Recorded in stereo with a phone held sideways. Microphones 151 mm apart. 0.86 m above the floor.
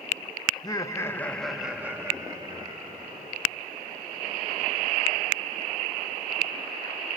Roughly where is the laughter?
Left.